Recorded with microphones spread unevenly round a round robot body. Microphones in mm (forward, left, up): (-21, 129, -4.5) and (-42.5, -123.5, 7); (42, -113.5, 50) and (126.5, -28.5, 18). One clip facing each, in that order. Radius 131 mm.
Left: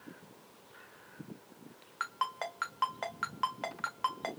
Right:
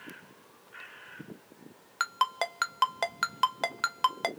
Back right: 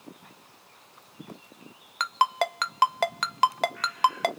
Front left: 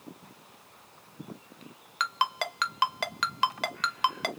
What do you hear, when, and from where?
2.0 s a ringtone: 85° right, 0.6 m